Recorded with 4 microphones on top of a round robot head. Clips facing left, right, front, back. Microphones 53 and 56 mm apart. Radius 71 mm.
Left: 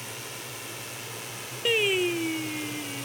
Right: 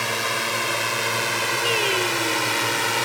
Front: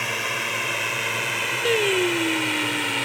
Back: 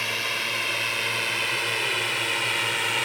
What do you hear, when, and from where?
0.0 s a drone: 75° right; by 3.1 s 90° right
1.6 s singing: 5° left